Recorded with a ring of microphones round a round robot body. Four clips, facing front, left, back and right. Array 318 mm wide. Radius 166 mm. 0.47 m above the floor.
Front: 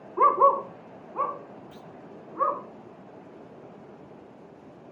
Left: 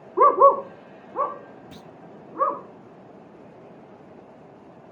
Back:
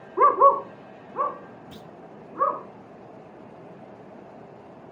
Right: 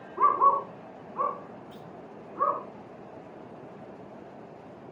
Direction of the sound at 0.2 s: 110° left.